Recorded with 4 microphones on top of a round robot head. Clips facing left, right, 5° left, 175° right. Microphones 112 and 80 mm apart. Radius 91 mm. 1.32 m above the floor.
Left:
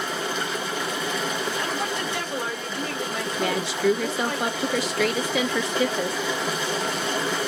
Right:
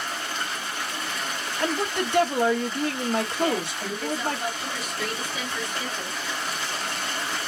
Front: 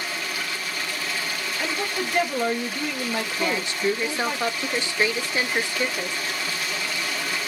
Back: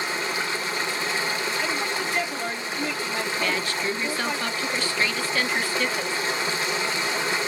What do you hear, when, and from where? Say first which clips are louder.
0.0 s running water: left 4 dB, back 3 dB; 125° left, 0.7 m
1.6 s a woman speaking: right 1 dB, even; 50° right, 1.9 m
3.4 s a woman speaking: left 2 dB, front 4 dB; 75° left, 1.0 m